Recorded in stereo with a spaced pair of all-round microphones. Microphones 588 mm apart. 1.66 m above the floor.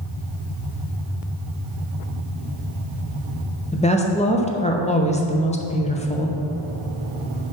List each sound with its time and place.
3.7 s a woman speaking: 10° left (ahead or behind), 0.8 m